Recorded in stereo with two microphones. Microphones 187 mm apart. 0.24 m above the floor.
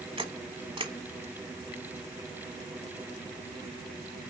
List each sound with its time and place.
0.2 s a camera shutter: 30° right (ahead or behind), 1.2 m